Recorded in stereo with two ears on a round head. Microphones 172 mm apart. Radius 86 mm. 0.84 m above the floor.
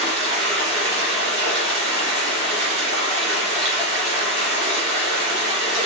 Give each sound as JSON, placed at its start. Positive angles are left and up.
{"t": 0.0, "sound": "running water", "side_deg": -65, "distance_m": 2.5}